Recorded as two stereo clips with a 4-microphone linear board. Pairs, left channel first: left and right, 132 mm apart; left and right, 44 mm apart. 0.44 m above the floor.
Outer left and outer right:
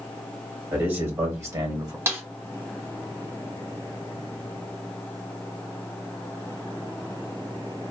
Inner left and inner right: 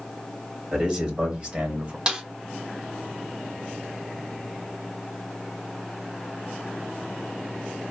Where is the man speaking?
15° right (ahead or behind), 1.9 m; by 2.0 s 30° right (ahead or behind), 1.6 m.